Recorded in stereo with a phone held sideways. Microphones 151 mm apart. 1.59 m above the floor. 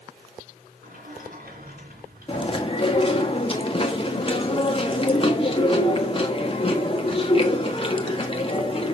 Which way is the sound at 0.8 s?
80° right.